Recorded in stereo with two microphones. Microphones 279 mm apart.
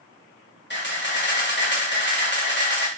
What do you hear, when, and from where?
0.7 s a camera shutter: 40° left (ahead or behind), 1.0 m